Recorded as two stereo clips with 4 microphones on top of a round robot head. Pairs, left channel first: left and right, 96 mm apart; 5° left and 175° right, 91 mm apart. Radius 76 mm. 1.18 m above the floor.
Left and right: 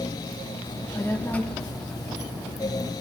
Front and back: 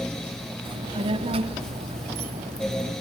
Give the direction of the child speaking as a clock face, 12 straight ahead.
7 o'clock.